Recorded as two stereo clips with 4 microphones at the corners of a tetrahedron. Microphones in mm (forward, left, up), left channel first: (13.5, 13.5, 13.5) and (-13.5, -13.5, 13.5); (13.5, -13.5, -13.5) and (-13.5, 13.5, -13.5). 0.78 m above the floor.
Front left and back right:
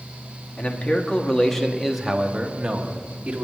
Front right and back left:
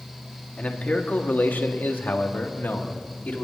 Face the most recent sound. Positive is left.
turn(degrees=-80)